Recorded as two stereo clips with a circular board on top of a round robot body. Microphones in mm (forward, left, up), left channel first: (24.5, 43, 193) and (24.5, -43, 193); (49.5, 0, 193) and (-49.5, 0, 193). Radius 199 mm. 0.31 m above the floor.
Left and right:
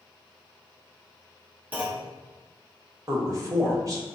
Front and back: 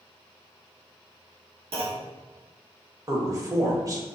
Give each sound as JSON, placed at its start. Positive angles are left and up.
{"t": 1.7, "sound": "a clunk", "azimuth_deg": -165, "distance_m": 1.3}
{"t": 3.1, "sound": "a man speaking", "azimuth_deg": -130, "distance_m": 1.7}